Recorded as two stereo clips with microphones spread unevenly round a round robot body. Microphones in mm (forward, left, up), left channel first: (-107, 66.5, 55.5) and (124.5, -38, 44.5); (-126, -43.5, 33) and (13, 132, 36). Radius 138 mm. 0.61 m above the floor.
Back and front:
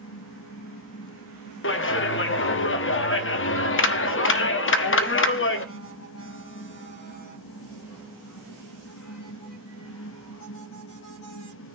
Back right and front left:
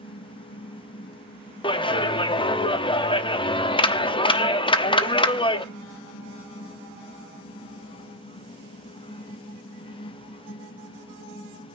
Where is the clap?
170° left, 1.3 m.